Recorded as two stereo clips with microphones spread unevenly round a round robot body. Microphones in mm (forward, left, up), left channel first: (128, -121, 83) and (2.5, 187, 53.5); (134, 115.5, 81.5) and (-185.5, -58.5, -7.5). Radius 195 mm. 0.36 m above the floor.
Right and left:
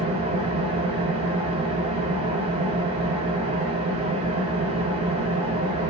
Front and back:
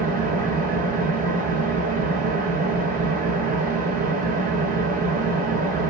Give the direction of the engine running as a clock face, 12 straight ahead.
7 o'clock.